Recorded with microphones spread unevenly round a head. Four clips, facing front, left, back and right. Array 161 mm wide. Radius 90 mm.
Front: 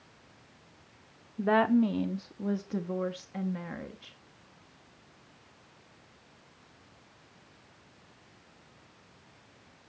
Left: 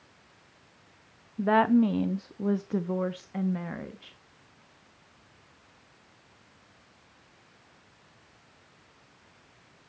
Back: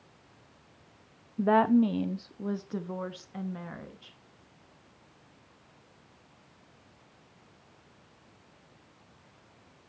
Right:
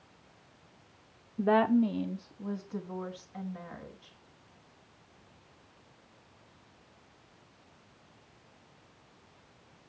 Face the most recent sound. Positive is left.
turn(degrees=75)